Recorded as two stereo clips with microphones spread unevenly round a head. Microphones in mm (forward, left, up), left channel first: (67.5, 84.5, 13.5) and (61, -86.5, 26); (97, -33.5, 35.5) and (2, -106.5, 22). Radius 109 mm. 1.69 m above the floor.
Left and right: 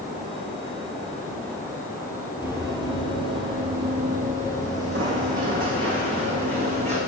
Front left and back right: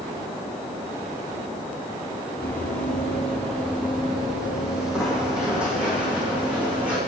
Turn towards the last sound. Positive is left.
turn(degrees=-60)